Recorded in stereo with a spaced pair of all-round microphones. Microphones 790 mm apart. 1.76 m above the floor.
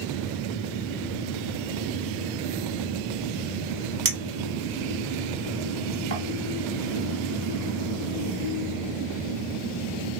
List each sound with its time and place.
4.0 s a clink: 20° right (ahead or behind), 1.0 m